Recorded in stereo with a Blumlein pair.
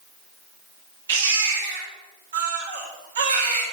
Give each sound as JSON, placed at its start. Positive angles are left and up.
{"t": 1.1, "sound": "a baby crying", "azimuth_deg": -65, "distance_m": 2.0}